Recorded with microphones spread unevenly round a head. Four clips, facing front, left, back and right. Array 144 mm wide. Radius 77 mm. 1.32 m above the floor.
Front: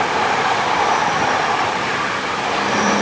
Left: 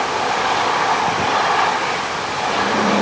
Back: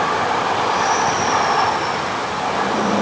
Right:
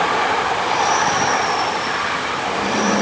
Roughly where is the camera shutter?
I don't hear a camera shutter.